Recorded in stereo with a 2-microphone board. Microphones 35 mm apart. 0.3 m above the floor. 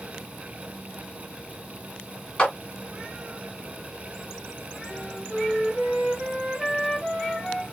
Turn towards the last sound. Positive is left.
turn(degrees=-15)  # may be behind; listen again after turning